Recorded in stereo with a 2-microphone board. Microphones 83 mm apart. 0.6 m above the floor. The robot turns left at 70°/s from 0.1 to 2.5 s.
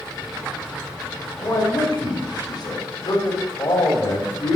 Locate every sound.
1.4 s a man speaking: 135° left, 2.5 m; by 4.6 s 55° left, 2.5 m